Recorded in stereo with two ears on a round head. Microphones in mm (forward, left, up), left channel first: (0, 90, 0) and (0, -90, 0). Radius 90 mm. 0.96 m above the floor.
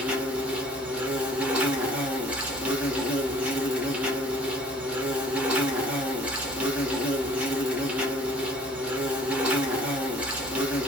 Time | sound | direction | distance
0.0 | an insect | 5° right (ahead or behind) | 1.2 m